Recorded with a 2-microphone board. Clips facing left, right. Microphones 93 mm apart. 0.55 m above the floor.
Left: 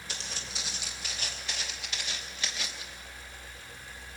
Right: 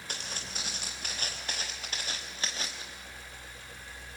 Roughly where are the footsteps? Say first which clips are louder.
Right 1 dB; right.